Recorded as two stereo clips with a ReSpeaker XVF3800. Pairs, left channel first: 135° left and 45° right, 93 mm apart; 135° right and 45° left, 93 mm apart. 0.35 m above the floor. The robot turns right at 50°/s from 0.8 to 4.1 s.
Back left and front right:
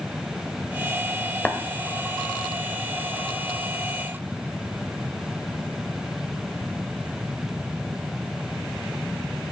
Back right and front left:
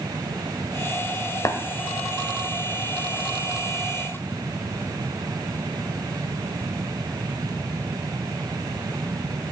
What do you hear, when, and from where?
1.4 s tapping: 160° right, 0.9 m; by 1.6 s 155° right, 0.9 m